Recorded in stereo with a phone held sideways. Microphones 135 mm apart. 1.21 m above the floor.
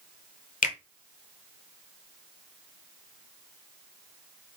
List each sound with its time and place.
0.6 s a finger snap: 80° left, 0.5 m